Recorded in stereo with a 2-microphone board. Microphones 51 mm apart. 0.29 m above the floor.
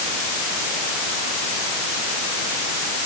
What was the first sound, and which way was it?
Only background noise.